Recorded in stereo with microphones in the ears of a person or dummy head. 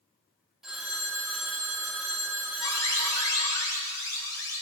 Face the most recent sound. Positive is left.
turn(degrees=20)  # may be behind; listen again after turning